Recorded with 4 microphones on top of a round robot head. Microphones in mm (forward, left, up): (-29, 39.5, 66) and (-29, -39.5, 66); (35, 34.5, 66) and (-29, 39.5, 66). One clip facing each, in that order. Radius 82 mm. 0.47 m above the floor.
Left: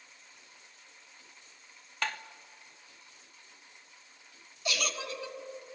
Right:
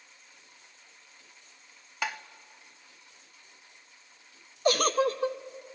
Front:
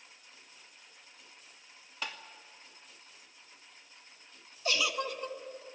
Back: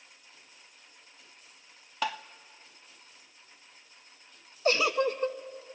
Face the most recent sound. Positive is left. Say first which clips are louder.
# right 11 dB, back 7 dB
turn(degrees=-135)